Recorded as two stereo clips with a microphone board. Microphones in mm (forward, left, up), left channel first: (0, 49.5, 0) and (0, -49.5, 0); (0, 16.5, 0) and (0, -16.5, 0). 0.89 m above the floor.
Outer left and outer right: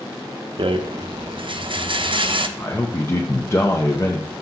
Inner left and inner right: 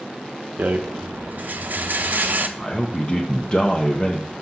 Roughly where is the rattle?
Right.